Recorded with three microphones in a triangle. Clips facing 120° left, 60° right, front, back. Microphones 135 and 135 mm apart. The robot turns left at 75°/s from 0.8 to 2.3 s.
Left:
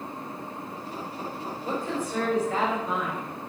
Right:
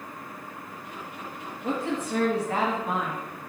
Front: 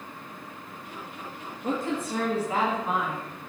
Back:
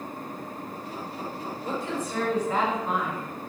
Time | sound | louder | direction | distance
1.6 | a woman speaking | right 2 dB, front 3 dB | 35° right | 1.0 m